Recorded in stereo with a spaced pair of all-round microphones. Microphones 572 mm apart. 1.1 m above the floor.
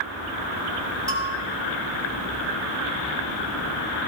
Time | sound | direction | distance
1.1 | a bell | 10° right (ahead or behind) | 4 m